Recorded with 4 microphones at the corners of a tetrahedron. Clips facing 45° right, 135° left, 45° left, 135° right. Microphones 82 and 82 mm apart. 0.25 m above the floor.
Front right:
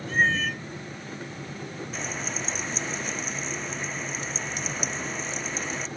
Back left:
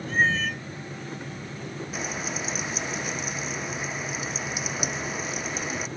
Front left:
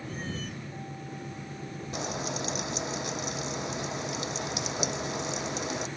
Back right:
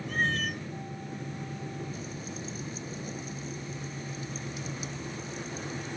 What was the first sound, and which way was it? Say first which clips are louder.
A cat meowing: even, back right 9 dB; 135° right.